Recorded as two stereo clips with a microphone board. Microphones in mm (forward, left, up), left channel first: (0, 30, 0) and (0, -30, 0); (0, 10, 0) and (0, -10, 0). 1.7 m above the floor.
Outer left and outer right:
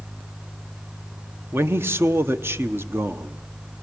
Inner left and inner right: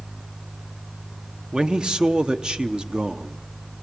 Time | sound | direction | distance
1.5 | a man speaking | 40° right (ahead or behind) | 0.7 m